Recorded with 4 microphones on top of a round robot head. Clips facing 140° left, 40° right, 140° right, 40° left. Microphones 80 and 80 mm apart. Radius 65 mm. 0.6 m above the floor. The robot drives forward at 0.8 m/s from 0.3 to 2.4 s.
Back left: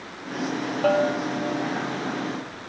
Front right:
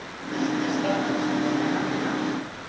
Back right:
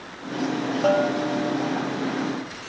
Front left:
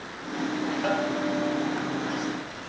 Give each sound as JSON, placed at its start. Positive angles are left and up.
{"t": 0.8, "sound": "a bell", "azimuth_deg": 175, "distance_m": 2.5}